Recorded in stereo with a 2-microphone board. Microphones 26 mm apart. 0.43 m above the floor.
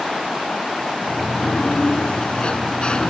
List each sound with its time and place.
1.0 s a sliding door: 35° left (ahead or behind)